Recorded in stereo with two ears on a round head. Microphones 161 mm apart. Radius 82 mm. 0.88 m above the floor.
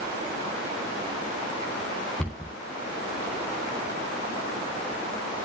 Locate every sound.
2.2 s a cupboard door: 5° left (ahead or behind), 4 m